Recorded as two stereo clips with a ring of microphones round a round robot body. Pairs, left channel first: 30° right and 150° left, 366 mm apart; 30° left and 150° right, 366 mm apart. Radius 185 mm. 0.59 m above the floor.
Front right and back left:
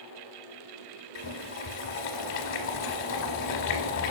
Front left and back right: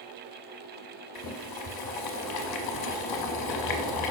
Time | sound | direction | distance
1.1 | boiling | 20° left | 0.6 m